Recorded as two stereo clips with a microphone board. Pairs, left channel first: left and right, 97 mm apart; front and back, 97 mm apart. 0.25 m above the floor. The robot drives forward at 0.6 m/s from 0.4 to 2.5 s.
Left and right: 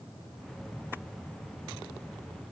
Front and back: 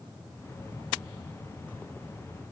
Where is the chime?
I don't hear a chime.